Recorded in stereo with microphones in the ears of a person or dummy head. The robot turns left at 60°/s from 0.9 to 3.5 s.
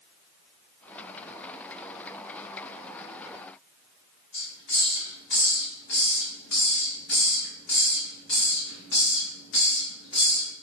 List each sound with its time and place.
4.3 s a hiss: 65° left (ahead or behind), 1.9 m